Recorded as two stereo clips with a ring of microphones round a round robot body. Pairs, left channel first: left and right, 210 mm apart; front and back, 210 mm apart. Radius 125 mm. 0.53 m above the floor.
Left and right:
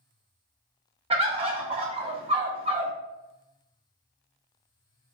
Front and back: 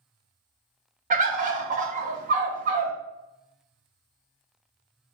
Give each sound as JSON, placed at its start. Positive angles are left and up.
{"t": 1.1, "sound": "a bird", "azimuth_deg": -140, "distance_m": 0.7}